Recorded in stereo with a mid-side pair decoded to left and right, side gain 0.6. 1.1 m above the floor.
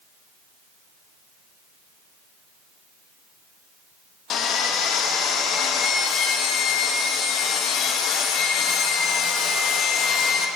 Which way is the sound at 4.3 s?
55° left.